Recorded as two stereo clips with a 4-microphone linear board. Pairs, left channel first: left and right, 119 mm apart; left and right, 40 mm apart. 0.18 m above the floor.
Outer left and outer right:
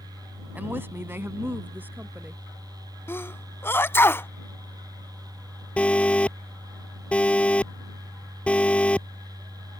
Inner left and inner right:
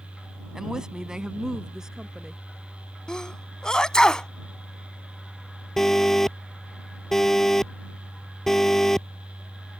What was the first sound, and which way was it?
A woman speaking, 15° right (ahead or behind).